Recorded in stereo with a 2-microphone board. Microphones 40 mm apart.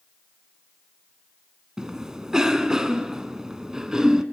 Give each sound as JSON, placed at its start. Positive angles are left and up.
{"t": 1.8, "sound": "a cough", "side_deg": -15, "distance_m": 1.1}